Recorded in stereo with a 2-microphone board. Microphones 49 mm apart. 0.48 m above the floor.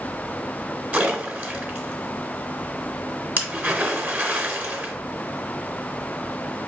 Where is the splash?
35° right (ahead or behind), 1.0 m.